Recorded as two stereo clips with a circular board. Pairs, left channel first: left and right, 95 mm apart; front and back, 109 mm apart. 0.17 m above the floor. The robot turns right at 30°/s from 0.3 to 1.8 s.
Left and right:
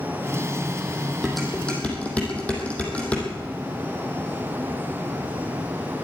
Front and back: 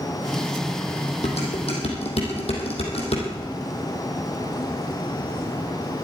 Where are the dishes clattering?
5° right, 4 m; by 3.3 s 15° left, 4 m.